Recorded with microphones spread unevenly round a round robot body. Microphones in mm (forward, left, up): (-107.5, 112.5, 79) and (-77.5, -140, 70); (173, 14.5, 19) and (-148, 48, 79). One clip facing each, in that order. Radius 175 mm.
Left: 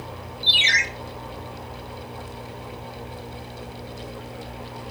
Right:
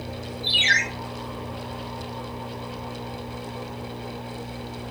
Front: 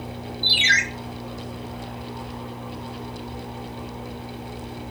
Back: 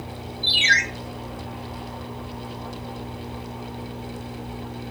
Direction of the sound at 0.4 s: 55° left.